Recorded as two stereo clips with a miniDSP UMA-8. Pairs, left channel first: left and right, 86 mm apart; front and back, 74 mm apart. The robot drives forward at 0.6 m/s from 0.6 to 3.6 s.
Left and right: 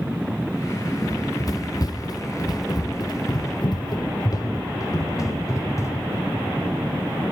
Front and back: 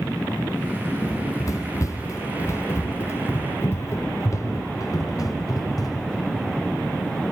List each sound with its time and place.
1.0 s running footsteps: 40° left, 1.1 m; by 6.2 s 35° left, 2.5 m